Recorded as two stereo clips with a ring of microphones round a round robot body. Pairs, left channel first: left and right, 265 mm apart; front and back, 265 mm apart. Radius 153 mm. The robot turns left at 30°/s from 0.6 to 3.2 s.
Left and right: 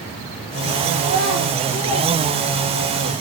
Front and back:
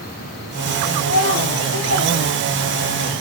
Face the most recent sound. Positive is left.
turn(degrees=-90)